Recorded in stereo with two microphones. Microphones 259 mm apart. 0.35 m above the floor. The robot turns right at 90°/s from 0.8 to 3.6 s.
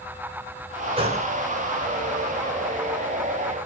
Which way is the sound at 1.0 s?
20° right (ahead or behind).